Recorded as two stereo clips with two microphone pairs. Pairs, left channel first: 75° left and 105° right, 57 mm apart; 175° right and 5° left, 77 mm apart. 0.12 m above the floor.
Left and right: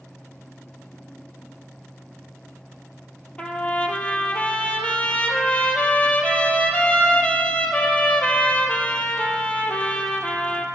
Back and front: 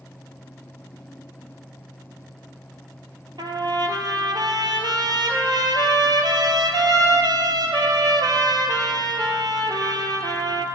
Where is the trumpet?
10° left, 1.0 m.